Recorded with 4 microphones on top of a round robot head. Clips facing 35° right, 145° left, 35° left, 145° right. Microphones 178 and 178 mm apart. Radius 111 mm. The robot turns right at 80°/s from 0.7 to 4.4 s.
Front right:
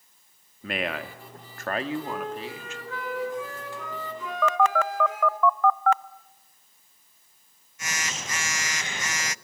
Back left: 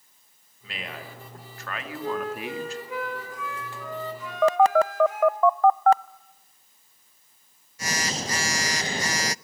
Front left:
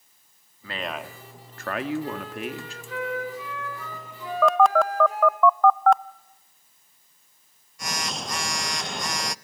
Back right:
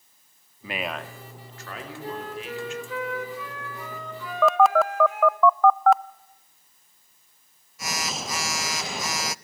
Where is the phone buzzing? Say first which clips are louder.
Back left 5 dB, even; 130° left, 0.5 m.